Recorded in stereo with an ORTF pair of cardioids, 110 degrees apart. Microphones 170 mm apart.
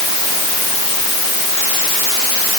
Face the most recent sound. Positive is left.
No sound to turn to.